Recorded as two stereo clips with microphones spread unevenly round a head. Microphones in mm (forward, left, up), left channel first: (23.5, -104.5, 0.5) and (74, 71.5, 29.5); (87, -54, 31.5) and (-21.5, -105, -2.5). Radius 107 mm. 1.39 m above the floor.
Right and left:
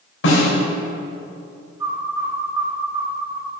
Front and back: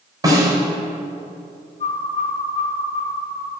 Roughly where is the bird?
Ahead.